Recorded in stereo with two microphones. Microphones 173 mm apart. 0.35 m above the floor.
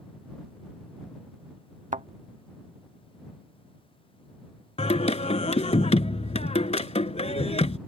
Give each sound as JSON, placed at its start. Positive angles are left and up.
{"t": 1.9, "sound": "a thud", "side_deg": -45}
{"t": 4.8, "sound": "singing", "side_deg": 35}